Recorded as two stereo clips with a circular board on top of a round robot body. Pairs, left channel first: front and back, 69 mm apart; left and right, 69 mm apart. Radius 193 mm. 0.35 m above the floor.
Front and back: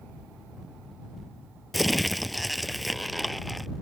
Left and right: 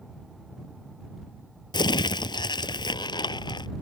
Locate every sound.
1.7 s crumpling: 90° left